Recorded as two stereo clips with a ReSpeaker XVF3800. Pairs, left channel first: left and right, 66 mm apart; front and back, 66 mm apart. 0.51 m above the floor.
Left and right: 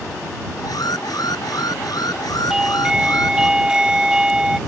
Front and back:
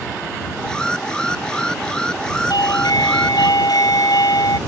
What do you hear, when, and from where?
0.6 s an alarm: 80° left
2.5 s a doorbell: 10° right